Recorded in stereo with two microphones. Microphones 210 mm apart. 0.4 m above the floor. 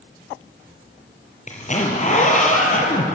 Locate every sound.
1.5 s a zipper: 35° left (ahead or behind), 4 m